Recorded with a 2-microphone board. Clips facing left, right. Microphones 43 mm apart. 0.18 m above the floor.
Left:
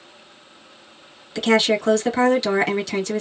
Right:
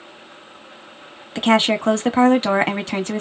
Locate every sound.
1.4 s a woman speaking: 35° right (ahead or behind), 1.1 m